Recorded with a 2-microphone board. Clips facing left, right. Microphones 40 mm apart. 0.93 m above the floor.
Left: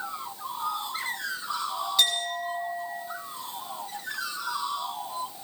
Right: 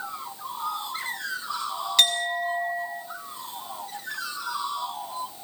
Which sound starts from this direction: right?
A clink, at 2.0 s.